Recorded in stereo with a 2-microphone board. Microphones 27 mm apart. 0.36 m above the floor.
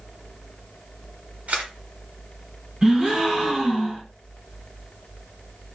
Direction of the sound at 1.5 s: 60° right (ahead or behind).